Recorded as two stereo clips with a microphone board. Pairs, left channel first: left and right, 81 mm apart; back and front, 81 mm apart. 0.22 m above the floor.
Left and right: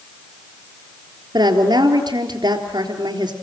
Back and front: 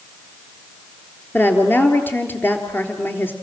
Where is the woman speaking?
120° right, 4 m.